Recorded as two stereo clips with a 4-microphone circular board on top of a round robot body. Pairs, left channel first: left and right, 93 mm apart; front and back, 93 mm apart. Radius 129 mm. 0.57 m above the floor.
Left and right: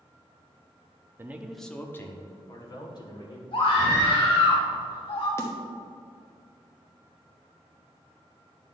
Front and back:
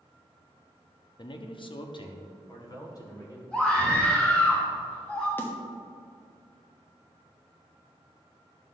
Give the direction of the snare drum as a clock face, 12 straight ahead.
10 o'clock.